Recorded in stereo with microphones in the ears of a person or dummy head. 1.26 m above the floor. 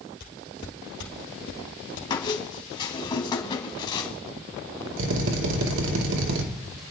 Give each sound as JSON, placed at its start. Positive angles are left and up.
{"t": 0.2, "sound": "footsteps", "side_deg": 45, "distance_m": 2.0}
{"t": 2.1, "sound": "a squeak", "side_deg": 30, "distance_m": 1.8}
{"t": 5.0, "sound": "a drill", "side_deg": -80, "distance_m": 2.5}